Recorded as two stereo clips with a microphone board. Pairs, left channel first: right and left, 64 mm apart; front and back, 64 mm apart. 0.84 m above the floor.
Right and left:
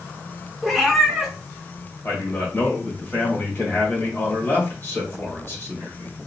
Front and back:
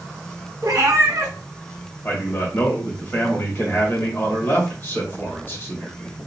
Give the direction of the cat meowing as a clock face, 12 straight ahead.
6 o'clock.